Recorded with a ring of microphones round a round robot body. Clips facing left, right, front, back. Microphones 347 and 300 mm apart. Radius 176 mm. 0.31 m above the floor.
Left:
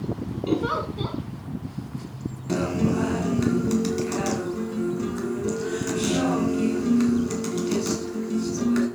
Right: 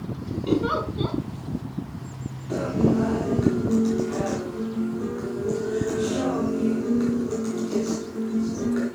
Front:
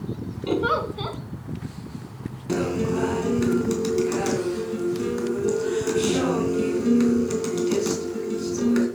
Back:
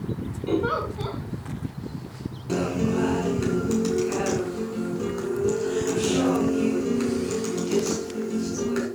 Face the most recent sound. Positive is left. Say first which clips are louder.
# right 2 dB, front 1 dB
turn(degrees=55)